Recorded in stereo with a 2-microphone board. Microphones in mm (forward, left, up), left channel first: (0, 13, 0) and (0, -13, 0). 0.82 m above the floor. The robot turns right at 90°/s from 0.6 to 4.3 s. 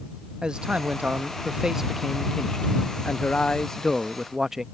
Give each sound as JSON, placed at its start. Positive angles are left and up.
{"t": 0.4, "sound": "a man speaking", "azimuth_deg": -135}